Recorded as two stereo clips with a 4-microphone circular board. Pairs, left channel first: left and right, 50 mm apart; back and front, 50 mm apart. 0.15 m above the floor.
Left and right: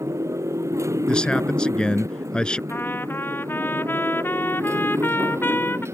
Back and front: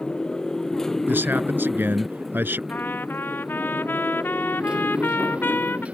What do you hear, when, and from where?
0.0 s a motorcycle: 105° right; by 6.0 s 65° right
1.1 s a man speaking: 25° left
2.7 s a trumpet: 135° left